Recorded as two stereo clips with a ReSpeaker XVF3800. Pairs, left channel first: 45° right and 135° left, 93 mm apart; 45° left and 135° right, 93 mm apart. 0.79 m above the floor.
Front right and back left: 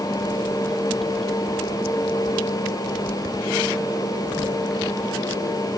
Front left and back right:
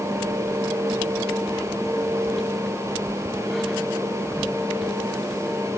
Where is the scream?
I don't hear a scream.